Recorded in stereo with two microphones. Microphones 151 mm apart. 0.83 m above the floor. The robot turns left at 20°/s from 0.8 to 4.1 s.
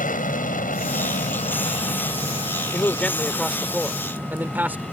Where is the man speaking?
15° left (ahead or behind); by 4.8 s 10° right (ahead or behind).